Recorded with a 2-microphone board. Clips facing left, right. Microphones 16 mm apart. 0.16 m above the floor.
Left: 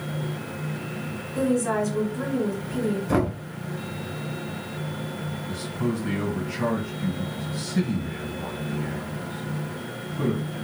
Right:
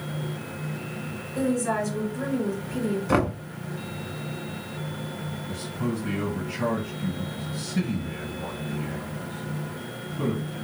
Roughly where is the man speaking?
Centre.